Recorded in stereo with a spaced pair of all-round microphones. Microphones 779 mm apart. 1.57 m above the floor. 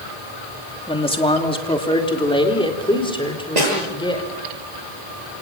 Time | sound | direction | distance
0.9 | a man speaking | 5° left (ahead or behind) | 2.5 m
3.6 | a snare drum | 60° right (ahead or behind) | 7.5 m